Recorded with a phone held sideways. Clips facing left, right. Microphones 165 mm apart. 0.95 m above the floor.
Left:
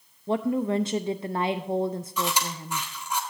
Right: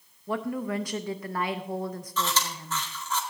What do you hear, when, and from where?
0.3 s a woman speaking: 25° left (ahead or behind), 0.5 m
2.2 s chewing: 15° left (ahead or behind), 1.9 m